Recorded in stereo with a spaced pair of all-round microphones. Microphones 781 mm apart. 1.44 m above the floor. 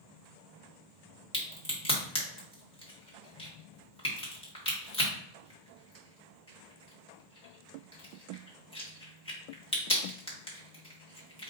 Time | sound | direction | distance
1.3 | a crack | 5° left (ahead or behind) | 1.5 m